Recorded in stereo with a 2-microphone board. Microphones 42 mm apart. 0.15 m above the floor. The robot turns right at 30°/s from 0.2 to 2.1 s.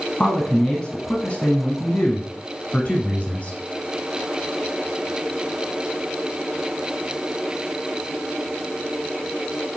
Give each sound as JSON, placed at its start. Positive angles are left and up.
{"t": 0.2, "sound": "a man speaking", "side_deg": 10, "distance_m": 1.1}